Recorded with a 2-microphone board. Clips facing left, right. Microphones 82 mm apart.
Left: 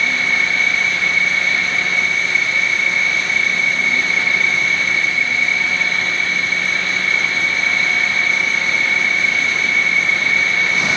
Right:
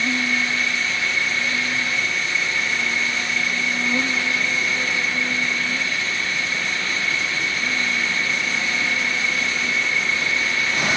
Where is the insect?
55° right (ahead or behind).